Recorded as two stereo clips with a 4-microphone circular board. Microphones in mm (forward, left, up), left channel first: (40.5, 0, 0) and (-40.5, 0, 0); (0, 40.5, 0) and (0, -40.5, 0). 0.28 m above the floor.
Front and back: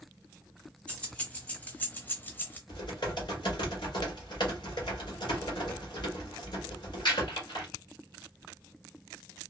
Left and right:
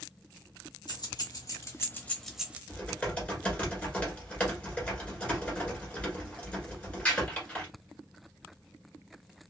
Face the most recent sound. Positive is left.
turn(degrees=15)